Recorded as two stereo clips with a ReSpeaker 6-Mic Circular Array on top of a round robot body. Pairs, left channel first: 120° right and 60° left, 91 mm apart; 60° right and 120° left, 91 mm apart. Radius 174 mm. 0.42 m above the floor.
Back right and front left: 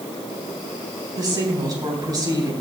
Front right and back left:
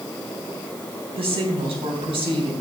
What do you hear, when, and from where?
1.2 s a woman speaking: 105° left, 3.5 m